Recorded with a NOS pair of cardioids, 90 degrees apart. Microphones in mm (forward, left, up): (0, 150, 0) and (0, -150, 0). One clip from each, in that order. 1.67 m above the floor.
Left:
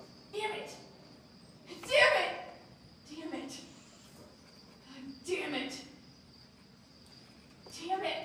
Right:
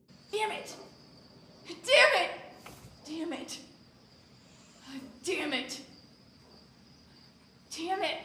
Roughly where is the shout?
Ahead right.